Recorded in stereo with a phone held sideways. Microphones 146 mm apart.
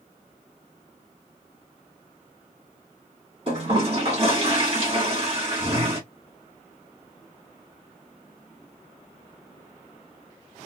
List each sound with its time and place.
3.5 s a toilet flushing: 40° right (ahead or behind), 1.9 m